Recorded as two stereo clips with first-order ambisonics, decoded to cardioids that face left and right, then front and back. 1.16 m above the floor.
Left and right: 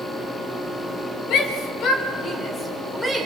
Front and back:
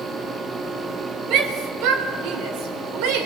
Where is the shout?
135° left, 3 m; by 3.3 s 175° left, 3.5 m.